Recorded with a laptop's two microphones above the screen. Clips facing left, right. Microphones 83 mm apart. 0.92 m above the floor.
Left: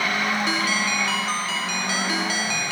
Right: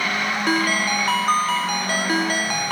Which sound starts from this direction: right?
A ringtone, at 0.5 s.